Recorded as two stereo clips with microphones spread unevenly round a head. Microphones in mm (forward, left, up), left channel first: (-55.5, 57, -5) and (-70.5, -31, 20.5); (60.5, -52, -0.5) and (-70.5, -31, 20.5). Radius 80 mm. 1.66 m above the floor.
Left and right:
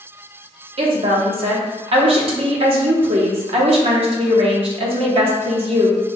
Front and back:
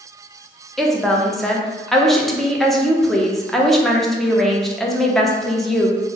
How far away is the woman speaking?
About 0.7 m.